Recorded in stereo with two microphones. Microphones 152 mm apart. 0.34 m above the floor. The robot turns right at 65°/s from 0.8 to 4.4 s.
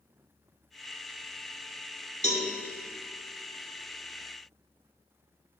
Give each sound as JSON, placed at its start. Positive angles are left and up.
{"t": 2.2, "sound": "a cowbell", "side_deg": 50, "distance_m": 1.7}